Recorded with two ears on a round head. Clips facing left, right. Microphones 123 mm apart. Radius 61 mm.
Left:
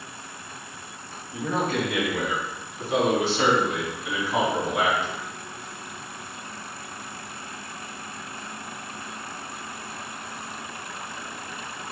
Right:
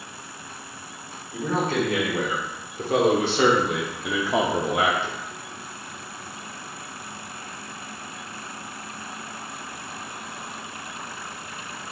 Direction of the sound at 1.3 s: 30° right (ahead or behind).